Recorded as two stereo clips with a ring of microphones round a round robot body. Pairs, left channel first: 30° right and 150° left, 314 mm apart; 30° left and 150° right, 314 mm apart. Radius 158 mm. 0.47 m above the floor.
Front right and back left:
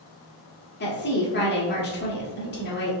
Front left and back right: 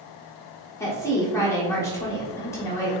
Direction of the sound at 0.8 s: 45° right.